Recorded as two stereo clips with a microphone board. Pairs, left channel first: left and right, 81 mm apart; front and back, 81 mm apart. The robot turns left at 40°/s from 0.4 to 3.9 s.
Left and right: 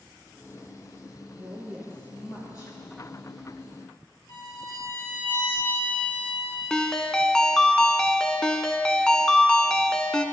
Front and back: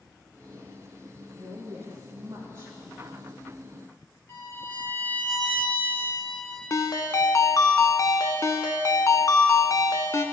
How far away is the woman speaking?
About 4.5 m.